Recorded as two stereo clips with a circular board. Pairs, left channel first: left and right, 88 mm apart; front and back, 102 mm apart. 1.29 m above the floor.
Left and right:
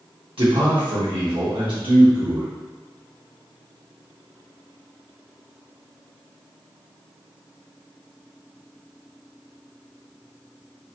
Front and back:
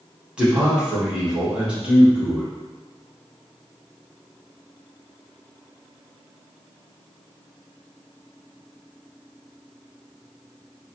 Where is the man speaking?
100° right, 1.4 m.